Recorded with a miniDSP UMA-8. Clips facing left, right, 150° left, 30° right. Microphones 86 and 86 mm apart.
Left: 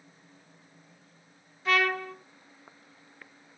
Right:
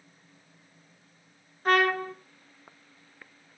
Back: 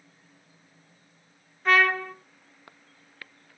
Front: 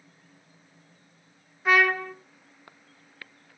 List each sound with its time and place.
1.6 s a trumpet: 110° right, 1.1 m